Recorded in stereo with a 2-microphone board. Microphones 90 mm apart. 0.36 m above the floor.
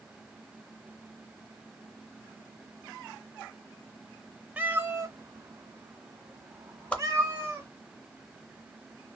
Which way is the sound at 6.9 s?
15° left (ahead or behind).